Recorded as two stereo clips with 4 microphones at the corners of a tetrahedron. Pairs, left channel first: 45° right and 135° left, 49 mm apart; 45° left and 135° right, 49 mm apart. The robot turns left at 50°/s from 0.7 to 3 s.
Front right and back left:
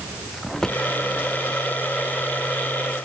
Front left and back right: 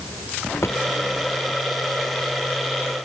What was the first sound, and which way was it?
A drawer, 35° left.